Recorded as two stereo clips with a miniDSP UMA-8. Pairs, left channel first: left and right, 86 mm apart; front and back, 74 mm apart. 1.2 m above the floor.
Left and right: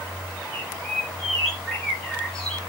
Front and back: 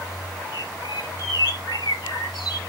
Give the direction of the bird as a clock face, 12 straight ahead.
12 o'clock.